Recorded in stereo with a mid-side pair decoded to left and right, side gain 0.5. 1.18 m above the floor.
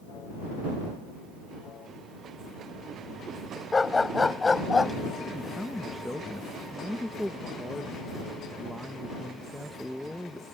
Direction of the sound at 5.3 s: 5° left.